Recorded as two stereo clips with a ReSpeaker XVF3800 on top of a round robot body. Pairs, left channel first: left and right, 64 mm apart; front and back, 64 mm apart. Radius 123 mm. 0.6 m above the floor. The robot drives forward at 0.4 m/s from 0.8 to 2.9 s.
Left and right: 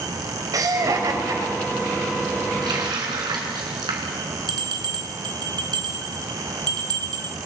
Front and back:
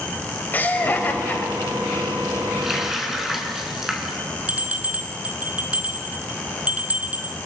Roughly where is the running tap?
Right.